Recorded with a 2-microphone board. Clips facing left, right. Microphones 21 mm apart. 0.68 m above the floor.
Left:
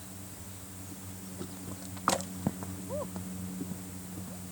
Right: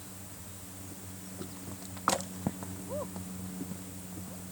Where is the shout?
No shout in this recording.